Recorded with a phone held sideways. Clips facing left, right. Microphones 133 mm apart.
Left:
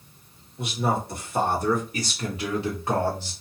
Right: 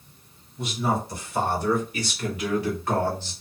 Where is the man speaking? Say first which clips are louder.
Even; 60° left (ahead or behind), 1.9 m; by 3.3 s 10° left (ahead or behind), 1.3 m.